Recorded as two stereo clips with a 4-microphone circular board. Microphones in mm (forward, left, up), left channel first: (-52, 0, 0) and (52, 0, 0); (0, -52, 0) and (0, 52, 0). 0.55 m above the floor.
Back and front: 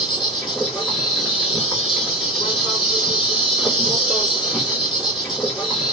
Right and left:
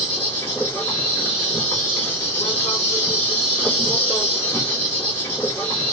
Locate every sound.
0.0 s an insect: 80° right, 1.8 m